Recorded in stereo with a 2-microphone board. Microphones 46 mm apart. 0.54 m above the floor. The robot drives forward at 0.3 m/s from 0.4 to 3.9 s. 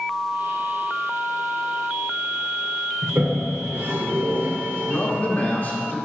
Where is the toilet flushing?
60° right (ahead or behind), 1.1 m; by 5.2 s 55° right (ahead or behind), 1.1 m.